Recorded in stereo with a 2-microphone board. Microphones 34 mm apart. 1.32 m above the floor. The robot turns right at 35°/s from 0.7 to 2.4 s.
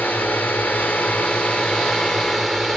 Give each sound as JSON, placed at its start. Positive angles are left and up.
{"t": 0.0, "sound": "a drone", "azimuth_deg": 120}